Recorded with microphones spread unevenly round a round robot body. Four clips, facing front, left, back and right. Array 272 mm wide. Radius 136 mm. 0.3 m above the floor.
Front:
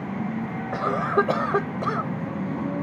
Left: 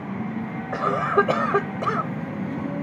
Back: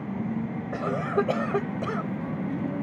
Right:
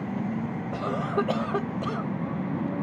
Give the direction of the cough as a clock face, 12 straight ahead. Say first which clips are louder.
Left 8 dB, front 4 dB; 9 o'clock.